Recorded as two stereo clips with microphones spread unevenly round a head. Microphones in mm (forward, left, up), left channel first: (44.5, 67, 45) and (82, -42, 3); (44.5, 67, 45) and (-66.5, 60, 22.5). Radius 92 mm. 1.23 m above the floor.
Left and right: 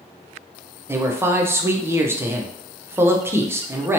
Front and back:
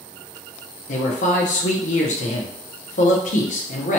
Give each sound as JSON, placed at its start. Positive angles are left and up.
{"t": 0.9, "sound": "a man speaking", "azimuth_deg": -10, "distance_m": 0.6}